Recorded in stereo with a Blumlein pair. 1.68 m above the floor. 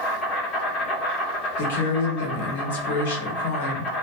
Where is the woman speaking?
60° left, 1.0 m.